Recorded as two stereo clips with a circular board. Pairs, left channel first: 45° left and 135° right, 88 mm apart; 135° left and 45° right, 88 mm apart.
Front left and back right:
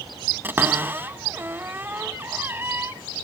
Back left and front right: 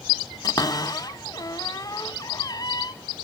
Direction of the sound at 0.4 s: 165° left.